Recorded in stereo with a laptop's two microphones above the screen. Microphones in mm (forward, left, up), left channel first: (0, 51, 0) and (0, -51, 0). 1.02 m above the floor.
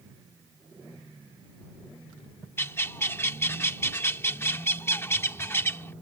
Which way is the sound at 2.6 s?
25° left (ahead or behind).